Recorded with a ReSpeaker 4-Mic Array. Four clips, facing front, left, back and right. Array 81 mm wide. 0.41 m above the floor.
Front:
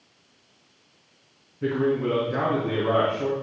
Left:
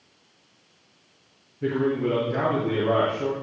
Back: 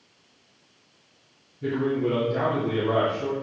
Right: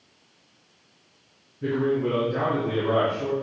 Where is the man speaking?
10° left, 5 m.